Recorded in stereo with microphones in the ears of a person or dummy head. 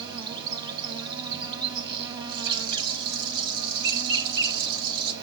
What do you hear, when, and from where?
0.0 s an insect: 25° right (ahead or behind), 1.2 m
2.3 s a rattle: 80° right, 3.5 m